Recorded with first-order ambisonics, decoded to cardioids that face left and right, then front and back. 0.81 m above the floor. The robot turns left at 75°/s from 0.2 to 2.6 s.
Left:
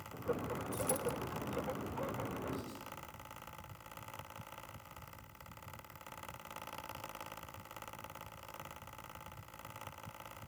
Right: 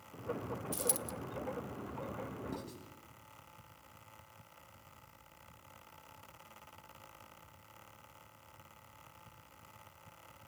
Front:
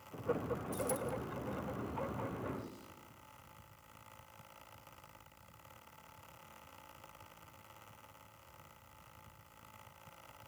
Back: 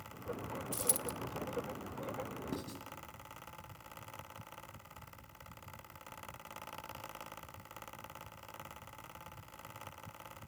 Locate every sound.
0.7 s a dropped coin: 135° right, 0.7 m; by 1.1 s 165° right, 0.7 m
2.5 s writing: 165° right, 3.5 m; by 2.8 s 170° right, 3.5 m